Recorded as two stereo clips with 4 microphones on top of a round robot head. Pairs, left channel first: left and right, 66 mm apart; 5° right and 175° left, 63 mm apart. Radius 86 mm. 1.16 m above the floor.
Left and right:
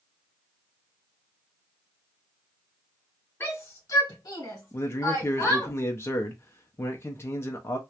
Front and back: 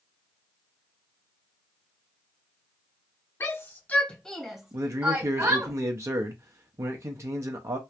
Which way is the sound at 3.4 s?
35° left.